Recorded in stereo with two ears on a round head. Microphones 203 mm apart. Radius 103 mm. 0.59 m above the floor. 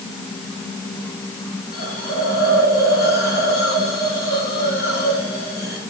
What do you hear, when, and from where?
1.7 s a hiss: 45° left (ahead or behind), 7 m